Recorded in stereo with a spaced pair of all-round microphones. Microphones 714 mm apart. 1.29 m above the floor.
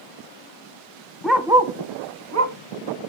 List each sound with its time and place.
1.2 s a dog barking: centre (ahead or behind), 0.7 m; by 2.6 s 25° right (ahead or behind), 0.8 m